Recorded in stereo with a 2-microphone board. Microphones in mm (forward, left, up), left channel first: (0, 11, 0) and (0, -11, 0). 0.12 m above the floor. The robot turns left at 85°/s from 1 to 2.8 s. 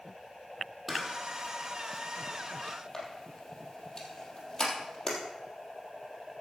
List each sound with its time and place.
0.9 s a camera shutter: 5° right (ahead or behind), 3 m; by 5.2 s 30° left (ahead or behind), 3 m